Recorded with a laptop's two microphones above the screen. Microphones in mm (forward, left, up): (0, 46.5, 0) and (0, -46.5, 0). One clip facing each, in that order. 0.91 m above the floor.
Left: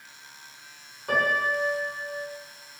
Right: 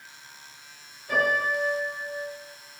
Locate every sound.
1.1 s a piano: 70° left (ahead or behind), 4 m